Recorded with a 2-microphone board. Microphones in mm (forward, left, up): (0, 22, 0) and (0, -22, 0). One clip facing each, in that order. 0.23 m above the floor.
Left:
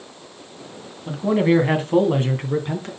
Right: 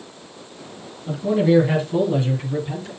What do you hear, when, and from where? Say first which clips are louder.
1.1 s a man speaking: even; 25° left (ahead or behind), 2 m; by 2.9 s 50° left (ahead or behind), 2.5 m